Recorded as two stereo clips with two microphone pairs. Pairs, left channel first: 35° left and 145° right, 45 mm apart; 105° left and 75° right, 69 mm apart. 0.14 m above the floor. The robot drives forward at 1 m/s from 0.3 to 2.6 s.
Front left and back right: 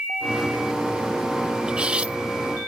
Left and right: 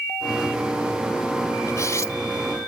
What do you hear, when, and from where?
1.7 s cutlery clinking: 145° left; by 2.2 s 150° left